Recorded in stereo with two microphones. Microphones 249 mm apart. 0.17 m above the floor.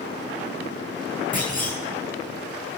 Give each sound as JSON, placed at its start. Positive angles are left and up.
{"t": 1.3, "sound": "a clunk", "side_deg": 30, "distance_m": 4.5}